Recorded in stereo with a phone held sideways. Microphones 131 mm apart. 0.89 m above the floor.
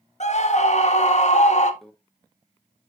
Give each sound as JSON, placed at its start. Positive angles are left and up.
{"t": 0.2, "sound": "a scream", "side_deg": 55, "distance_m": 1.5}
{"t": 1.8, "sound": "a microwave", "side_deg": 5, "distance_m": 1.2}